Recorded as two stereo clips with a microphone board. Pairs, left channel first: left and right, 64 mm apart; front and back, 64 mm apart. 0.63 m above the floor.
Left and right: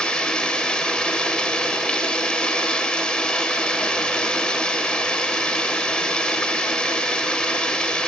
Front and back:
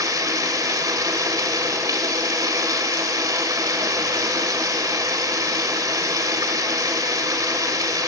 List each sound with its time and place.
0.0 s running water: 165° left, 1.9 m